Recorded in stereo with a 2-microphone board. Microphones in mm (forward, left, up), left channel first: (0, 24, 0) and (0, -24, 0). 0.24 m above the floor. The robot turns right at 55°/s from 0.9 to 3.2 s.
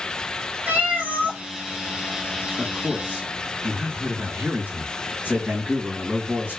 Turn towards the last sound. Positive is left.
turn(degrees=-60)